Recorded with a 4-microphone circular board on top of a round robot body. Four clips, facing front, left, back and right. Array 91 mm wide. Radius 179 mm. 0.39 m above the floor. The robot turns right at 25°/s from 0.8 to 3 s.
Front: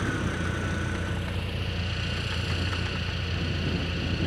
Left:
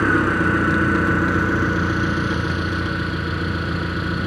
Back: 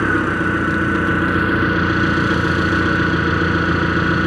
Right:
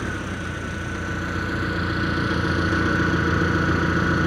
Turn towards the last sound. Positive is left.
turn(degrees=-165)